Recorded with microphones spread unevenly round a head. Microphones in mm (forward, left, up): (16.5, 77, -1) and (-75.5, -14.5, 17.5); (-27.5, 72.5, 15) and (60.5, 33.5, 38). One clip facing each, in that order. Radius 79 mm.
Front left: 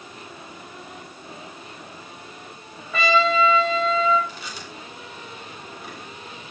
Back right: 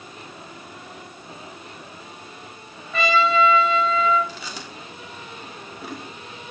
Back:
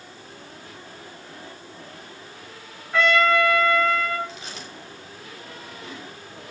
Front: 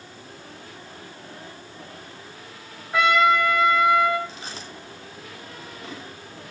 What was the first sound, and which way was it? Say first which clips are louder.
A trumpet: even, front 1 dB; 45° left.